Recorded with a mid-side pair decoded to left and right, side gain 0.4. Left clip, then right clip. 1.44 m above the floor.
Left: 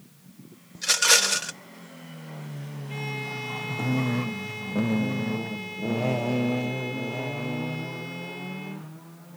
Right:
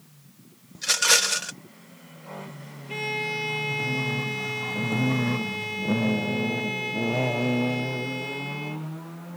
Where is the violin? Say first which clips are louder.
Right 5 dB; 40° right.